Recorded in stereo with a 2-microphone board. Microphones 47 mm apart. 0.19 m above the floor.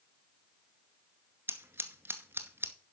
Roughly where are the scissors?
Right.